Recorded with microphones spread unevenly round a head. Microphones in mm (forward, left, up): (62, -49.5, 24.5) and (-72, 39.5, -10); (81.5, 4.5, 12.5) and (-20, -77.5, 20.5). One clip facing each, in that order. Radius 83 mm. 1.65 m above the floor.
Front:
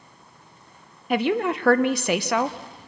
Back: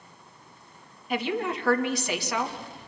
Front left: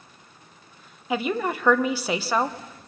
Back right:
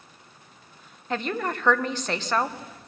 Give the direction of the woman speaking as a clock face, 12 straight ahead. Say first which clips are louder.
Front 6 dB, front left 3 dB; 1 o'clock.